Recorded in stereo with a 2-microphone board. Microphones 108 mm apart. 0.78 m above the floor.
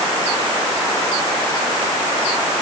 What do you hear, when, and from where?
Only background noise.